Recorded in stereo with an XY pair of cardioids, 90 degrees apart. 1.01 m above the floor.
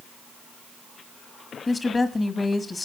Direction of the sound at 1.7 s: 30° left.